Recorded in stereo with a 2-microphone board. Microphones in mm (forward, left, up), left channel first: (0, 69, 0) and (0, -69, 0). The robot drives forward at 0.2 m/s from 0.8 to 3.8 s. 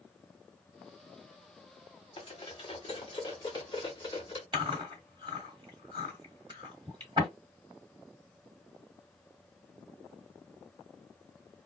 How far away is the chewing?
About 1.9 m.